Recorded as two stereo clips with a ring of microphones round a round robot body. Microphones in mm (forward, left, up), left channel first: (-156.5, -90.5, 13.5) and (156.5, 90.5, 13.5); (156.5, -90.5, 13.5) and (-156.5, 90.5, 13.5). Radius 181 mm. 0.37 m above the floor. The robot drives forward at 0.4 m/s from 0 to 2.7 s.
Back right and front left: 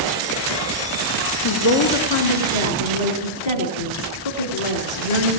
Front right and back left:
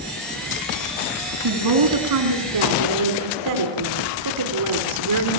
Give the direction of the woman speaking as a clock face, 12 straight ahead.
6 o'clock.